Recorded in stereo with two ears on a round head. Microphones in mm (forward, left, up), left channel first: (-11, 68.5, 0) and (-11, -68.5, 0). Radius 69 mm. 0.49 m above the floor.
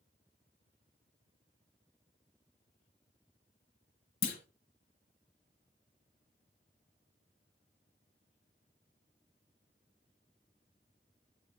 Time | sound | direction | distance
4.2 | a clunk | 70° left (ahead or behind) | 1.4 m